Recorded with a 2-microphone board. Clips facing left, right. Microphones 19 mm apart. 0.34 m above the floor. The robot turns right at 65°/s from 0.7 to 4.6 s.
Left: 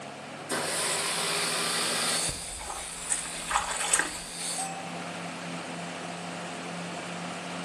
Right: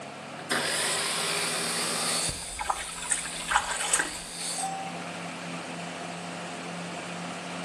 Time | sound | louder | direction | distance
0.4 | a blender | right 3 dB | 40° right | 2.5 m
2.3 | a splash | right 5 dB | 95° right | 2.5 m
4.6 | a bell | right 2 dB | centre (ahead or behind) | 5 m